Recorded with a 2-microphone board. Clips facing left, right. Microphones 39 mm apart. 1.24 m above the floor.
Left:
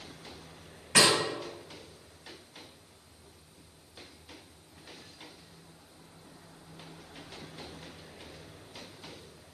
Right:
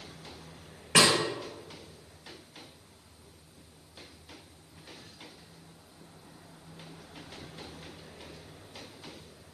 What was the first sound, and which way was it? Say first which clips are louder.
A snare drum: right 1 dB; 60° right (ahead or behind).